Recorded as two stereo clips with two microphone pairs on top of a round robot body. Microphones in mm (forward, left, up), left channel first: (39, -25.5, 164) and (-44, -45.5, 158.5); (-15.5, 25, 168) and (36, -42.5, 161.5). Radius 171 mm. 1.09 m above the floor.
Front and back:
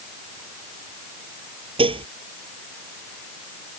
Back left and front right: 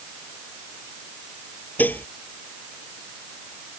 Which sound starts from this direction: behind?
Dishes clattering, at 1.8 s.